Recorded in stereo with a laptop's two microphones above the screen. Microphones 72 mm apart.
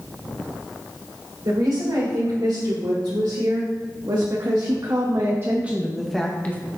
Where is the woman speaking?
80° right, 3.5 m; by 6.6 s 25° left (ahead or behind), 0.9 m.